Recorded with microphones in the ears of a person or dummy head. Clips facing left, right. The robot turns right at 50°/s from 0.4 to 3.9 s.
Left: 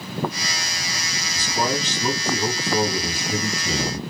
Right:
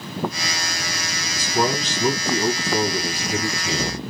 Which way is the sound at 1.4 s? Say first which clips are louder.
Right 2 dB; 65° right.